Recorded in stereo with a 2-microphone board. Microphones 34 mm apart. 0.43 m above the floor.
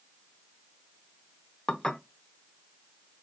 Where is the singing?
I don't hear singing.